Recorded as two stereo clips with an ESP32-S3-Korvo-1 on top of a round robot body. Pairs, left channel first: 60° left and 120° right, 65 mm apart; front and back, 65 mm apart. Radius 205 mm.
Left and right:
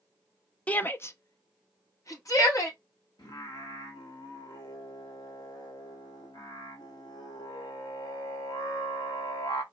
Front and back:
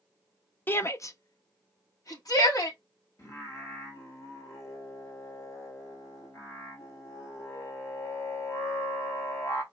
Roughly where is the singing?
Ahead left.